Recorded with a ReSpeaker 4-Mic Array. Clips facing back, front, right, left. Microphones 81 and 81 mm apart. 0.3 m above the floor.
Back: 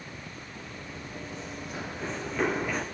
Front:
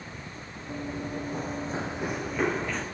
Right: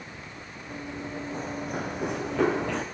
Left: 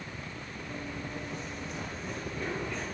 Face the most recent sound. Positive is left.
turn(degrees=-100)